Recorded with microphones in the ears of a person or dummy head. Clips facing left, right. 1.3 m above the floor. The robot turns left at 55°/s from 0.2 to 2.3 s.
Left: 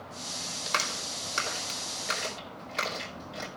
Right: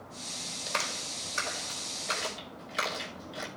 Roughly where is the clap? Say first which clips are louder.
Left 1 dB; left.